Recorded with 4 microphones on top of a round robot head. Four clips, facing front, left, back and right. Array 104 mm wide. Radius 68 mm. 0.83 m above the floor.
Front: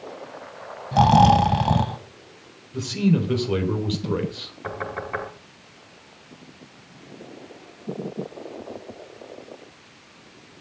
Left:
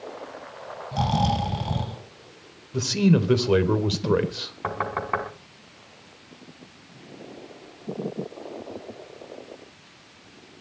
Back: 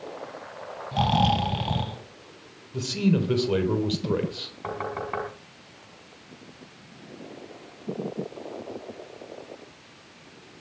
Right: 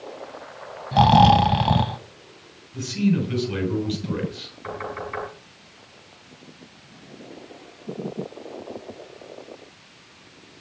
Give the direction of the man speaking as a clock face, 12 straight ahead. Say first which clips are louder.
Left 2 dB, front 2 dB; 9 o'clock.